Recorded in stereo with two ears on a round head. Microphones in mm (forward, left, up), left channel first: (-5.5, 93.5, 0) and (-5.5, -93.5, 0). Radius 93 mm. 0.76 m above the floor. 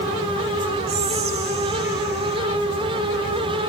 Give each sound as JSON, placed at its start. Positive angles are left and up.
{"t": 0.9, "sound": "whispering", "side_deg": -50, "distance_m": 0.8}